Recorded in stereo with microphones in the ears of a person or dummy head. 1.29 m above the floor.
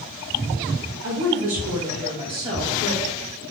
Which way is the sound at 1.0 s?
60° right (ahead or behind).